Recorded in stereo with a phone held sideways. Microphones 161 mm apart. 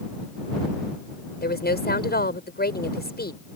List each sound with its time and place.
1.4 s a woman speaking: 85° left